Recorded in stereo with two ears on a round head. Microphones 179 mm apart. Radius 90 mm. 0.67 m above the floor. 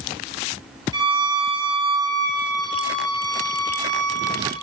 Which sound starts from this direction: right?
A violin, at 0.9 s.